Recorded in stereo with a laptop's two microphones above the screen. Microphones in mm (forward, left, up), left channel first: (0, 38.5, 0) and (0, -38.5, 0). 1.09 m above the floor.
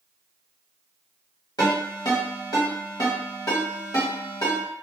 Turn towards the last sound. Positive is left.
turn(degrees=55)  # may be behind; listen again after turning